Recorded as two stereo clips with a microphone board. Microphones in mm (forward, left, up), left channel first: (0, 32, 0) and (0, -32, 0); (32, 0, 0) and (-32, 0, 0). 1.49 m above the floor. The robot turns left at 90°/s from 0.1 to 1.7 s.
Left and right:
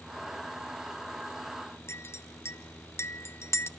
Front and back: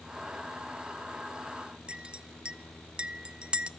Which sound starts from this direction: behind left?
A clink, at 1.9 s.